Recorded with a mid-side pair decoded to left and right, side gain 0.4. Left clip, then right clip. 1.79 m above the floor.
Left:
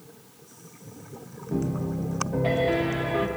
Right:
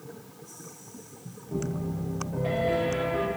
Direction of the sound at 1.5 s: 50° left.